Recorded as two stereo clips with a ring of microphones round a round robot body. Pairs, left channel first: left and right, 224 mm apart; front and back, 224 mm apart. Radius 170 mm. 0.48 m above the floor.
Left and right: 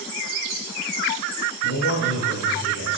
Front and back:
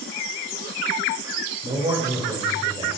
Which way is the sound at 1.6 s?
120° left.